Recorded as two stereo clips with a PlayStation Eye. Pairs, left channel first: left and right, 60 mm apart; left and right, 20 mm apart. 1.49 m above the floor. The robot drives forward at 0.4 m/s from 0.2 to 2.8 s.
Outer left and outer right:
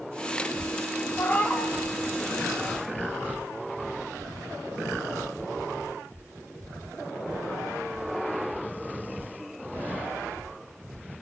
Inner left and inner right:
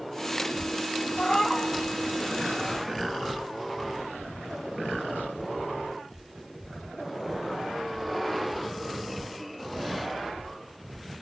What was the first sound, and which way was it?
A cat meowing, 25° left (ahead or behind).